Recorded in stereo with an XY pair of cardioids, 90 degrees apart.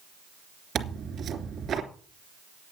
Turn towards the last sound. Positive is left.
turn(degrees=-65)